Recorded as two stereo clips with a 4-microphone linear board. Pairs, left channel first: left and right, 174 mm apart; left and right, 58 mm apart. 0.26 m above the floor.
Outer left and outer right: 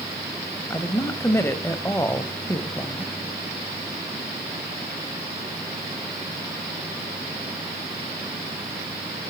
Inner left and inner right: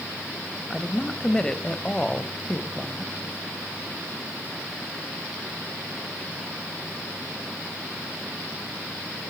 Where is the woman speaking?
15° left (ahead or behind), 1.0 m.